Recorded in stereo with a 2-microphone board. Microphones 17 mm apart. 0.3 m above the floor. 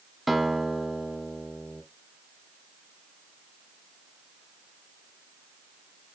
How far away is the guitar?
About 0.7 m.